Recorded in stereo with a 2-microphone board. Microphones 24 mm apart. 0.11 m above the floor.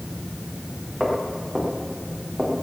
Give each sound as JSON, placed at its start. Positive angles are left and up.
{"t": 1.0, "sound": "footsteps", "side_deg": -5, "distance_m": 7.5}